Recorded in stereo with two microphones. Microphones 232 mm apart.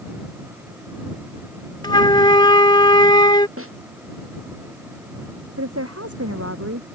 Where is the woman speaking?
80° right.